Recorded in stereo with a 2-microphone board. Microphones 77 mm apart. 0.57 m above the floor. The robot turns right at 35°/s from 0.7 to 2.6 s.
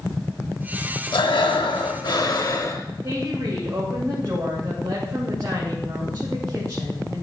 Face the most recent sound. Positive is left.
turn(degrees=-45)  # may be behind; listen again after turning